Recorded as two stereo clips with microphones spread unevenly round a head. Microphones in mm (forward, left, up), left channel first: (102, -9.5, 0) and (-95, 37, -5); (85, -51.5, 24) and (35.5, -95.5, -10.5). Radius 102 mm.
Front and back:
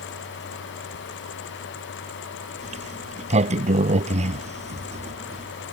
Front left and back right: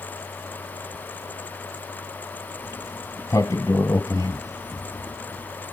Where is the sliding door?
105° left.